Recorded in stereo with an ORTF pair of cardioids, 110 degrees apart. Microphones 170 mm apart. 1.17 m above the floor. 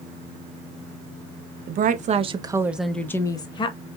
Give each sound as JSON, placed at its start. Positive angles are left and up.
{"t": 1.7, "sound": "a woman speaking", "azimuth_deg": -60, "distance_m": 0.8}